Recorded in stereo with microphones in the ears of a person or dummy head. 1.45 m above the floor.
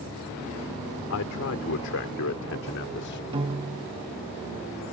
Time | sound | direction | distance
1.1 | a man speaking | 75° left (ahead or behind) | ?
3.3 | a piano | 25° right (ahead or behind) | ?